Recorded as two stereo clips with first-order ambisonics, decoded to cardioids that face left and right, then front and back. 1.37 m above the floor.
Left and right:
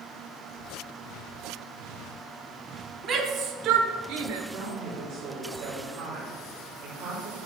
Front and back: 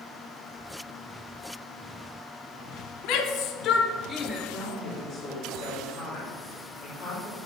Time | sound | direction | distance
3.0 | a shout | 35° right | 1.2 m
4.5 | a woman speaking | 85° right | 3 m